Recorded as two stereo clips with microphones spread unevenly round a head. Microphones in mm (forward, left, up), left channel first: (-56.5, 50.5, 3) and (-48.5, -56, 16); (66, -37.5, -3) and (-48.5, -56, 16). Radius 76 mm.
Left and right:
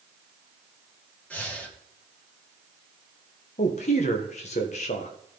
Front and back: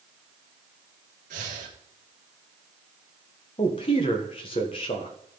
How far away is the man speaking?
About 1.3 m.